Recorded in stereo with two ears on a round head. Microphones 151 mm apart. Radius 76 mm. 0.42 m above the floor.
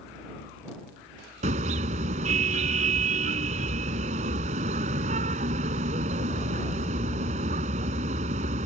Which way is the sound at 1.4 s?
40° right (ahead or behind).